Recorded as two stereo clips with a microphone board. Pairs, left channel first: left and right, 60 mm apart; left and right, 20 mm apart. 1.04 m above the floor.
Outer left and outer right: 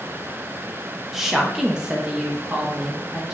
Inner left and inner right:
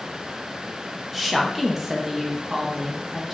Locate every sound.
1.1 s a woman speaking: 5° right (ahead or behind), 0.7 m; by 3.4 s 15° right (ahead or behind), 1.2 m